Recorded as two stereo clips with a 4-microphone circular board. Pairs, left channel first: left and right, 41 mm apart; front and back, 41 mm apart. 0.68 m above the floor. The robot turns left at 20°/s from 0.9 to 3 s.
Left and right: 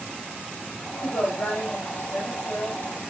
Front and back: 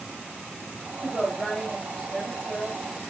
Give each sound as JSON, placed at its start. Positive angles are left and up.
{"t": 1.0, "sound": "a woman speaking", "azimuth_deg": 85, "distance_m": 4.5}